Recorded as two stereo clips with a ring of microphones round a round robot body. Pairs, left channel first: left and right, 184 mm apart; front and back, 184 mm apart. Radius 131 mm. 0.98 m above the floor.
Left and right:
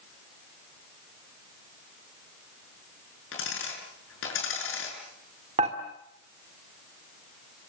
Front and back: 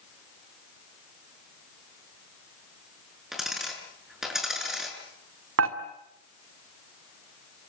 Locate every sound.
3.3 s a dropped coin: 90° left, 6.5 m
5.6 s dishes clattering: 160° right, 1.7 m